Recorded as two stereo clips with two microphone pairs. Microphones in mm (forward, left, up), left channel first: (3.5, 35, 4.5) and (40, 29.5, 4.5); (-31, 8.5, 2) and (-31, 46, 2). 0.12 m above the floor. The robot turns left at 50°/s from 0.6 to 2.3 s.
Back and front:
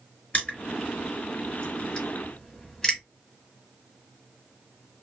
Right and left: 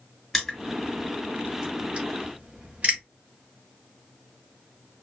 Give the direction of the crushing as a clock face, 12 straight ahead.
6 o'clock.